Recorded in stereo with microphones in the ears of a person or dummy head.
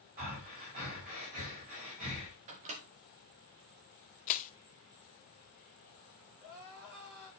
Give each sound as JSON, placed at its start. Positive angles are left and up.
{"t": 0.2, "sound": "breathing", "side_deg": -40, "distance_m": 5.5}
{"t": 2.5, "sound": "a microwave", "side_deg": -30, "distance_m": 0.8}
{"t": 4.3, "sound": "crushing", "side_deg": 40, "distance_m": 0.6}
{"t": 6.4, "sound": "crying", "side_deg": -50, "distance_m": 7.0}